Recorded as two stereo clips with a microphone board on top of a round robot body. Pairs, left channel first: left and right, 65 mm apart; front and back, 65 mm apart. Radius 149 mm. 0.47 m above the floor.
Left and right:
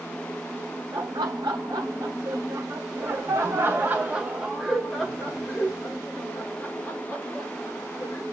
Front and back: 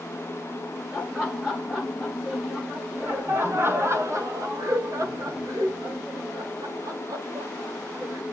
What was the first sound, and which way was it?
Laughter, 80° right.